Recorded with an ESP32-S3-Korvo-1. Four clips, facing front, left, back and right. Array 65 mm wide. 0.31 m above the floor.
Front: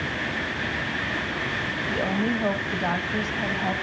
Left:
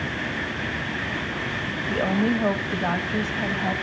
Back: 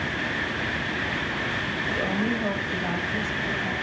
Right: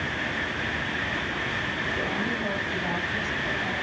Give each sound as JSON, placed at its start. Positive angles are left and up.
{"t": 1.9, "sound": "a woman speaking", "azimuth_deg": 75, "distance_m": 1.3}